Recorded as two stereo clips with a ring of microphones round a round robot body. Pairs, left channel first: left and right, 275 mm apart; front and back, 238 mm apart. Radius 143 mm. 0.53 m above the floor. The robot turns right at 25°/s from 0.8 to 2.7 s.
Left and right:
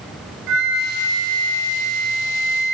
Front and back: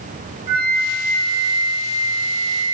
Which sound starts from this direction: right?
A flute, at 0.5 s.